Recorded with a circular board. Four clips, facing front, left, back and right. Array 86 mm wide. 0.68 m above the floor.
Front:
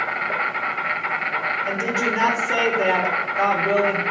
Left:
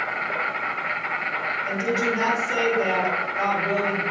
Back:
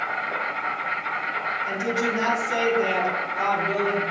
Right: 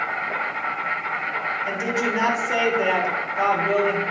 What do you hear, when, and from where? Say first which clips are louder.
0.0 s an insect: right 1 dB, front 3 dB; 15° left, 1.2 m
1.6 s a woman speaking: left 2 dB, front 2 dB; 30° right, 2.0 m